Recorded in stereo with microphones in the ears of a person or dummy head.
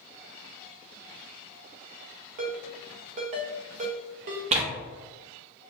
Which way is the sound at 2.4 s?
40° right (ahead or behind).